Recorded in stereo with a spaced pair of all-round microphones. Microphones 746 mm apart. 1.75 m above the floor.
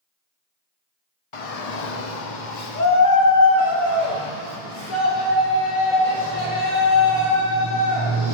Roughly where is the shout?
Left.